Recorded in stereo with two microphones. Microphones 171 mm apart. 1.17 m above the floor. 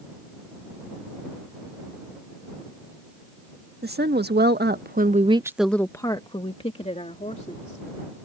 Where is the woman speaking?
75° right (ahead or behind); by 7.8 s 45° left (ahead or behind).